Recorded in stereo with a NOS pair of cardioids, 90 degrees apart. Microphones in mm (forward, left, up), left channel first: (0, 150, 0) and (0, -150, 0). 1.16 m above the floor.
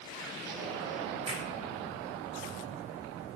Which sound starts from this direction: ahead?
A finger snap, at 1.3 s.